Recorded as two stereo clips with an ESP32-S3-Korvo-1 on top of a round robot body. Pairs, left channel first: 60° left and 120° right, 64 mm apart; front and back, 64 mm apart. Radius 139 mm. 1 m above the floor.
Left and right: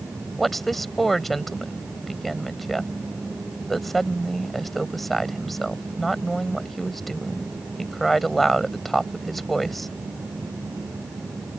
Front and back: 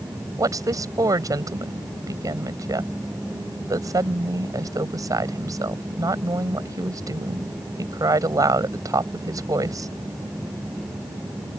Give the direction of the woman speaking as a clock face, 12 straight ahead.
7 o'clock.